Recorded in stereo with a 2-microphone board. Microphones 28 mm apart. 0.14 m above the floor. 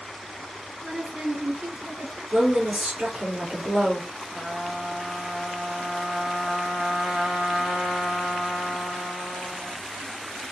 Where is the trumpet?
35° right (ahead or behind), 1.0 m.